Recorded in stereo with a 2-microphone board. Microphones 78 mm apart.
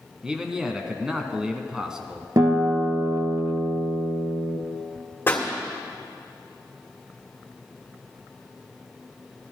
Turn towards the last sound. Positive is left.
turn(degrees=30)  # may be behind; listen again after turning